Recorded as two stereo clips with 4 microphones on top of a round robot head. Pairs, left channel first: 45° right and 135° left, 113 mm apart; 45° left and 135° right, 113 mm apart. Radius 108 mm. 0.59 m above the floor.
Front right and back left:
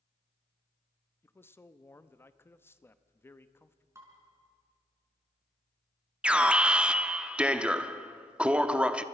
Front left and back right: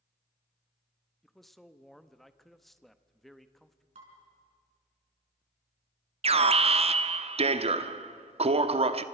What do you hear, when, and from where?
1.2 s a man speaking: 40° right, 1.0 m
4.0 s dishes clattering: 160° right, 5.5 m
6.2 s an alarm: 145° right, 1.0 m